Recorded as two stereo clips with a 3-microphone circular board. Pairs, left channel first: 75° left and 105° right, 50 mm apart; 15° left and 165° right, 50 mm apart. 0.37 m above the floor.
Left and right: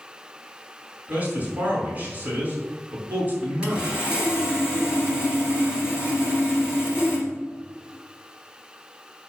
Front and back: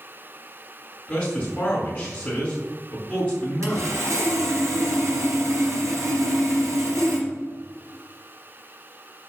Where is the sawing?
Straight behind, 3 m.